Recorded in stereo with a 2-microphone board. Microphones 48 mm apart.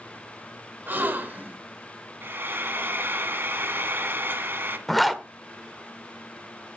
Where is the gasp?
45° right (ahead or behind), 1.3 m.